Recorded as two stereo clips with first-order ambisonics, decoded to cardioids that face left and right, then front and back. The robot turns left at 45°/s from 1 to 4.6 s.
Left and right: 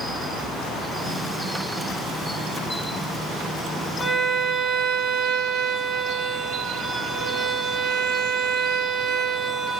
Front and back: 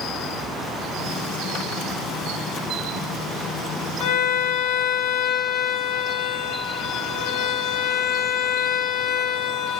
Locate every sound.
4.0 s a violin: 5° left, 1.0 m; by 9.8 s 25° right, 1.0 m